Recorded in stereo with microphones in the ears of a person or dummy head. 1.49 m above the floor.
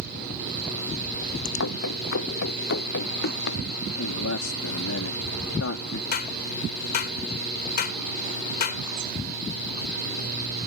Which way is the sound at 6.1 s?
55° left (ahead or behind).